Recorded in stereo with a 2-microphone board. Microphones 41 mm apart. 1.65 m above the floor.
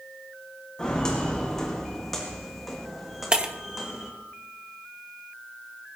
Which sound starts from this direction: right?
Breaking glass, at 3.3 s.